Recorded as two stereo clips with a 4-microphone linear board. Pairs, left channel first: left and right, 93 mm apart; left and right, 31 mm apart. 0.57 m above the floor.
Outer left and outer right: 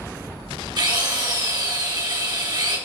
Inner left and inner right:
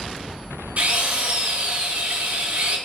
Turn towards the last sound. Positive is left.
turn(degrees=-50)  # may be behind; listen again after turning